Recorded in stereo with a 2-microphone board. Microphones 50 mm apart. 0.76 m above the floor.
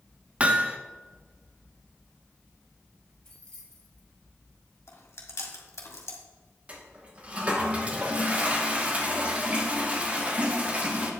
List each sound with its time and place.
0.4 s hammering: 25° right (ahead or behind), 0.5 m
3.2 s keys jangling: 15° left (ahead or behind), 3 m
4.9 s chewing: 65° left (ahead or behind), 1.6 m
6.7 s a toilet flushing: 25° right (ahead or behind), 1.0 m